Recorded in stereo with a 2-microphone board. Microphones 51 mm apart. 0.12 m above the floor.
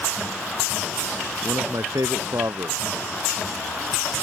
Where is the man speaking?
80° right.